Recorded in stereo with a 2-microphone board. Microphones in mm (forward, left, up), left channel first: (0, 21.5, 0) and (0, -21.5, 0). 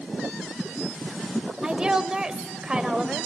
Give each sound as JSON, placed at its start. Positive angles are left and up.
{"t": 1.6, "sound": "a woman speaking", "side_deg": -20, "distance_m": 0.9}